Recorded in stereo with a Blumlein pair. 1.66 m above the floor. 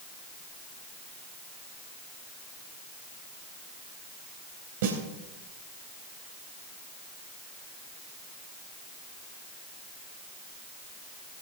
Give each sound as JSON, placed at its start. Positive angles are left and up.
{"t": 4.8, "sound": "a snare drum", "azimuth_deg": -55, "distance_m": 3.5}